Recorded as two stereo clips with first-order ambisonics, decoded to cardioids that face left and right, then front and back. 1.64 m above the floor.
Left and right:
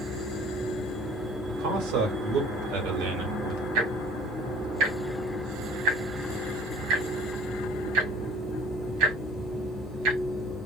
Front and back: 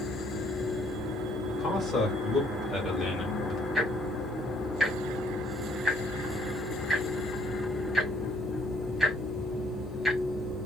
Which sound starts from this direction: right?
Ticking, at 3.8 s.